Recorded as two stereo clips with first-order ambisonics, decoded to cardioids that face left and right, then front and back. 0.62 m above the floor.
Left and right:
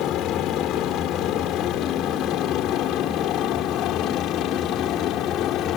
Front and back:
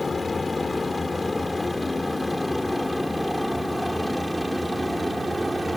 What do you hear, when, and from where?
0.0 s a helicopter: 75° left; by 5.8 s 100° left